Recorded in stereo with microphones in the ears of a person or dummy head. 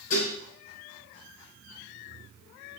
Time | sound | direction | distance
0.1 | dishes clattering | 75° left (ahead or behind) | 4 m